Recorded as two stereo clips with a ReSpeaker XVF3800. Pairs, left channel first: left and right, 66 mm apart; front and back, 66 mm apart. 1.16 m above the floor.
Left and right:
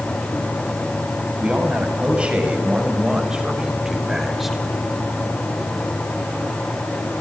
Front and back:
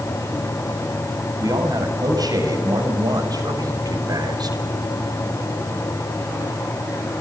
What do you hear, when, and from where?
1.4 s a man speaking: 160° right, 7 m; by 4.6 s 175° right, 4 m